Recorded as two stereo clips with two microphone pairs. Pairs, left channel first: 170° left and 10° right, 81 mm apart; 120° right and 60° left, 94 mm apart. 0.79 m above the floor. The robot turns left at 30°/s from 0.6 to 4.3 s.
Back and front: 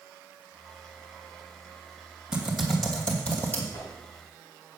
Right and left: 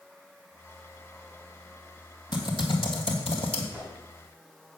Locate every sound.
2.3 s typing on a keyboard: 90° right, 2.5 m; by 3.6 s 130° right, 2.5 m
3.7 s a whoosh: 140° left, 7 m; by 3.9 s 135° left, 7 m